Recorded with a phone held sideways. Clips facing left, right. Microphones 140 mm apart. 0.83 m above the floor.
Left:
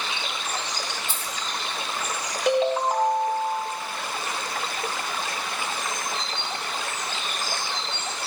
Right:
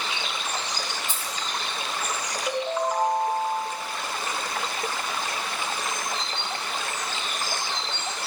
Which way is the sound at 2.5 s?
75° left (ahead or behind).